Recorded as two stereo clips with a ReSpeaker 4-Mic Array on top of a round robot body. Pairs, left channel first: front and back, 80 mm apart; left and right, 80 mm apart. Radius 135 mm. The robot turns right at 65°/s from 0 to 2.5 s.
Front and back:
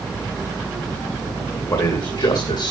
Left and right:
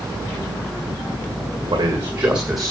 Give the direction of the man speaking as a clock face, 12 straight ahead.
2 o'clock.